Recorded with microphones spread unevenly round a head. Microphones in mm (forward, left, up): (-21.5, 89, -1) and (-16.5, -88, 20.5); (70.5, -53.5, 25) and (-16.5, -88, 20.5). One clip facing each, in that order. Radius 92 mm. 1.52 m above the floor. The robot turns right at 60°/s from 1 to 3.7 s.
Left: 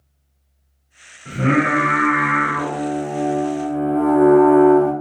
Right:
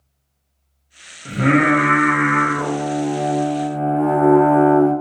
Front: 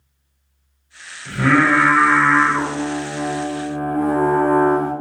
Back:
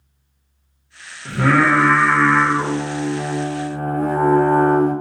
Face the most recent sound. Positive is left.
turn(degrees=45)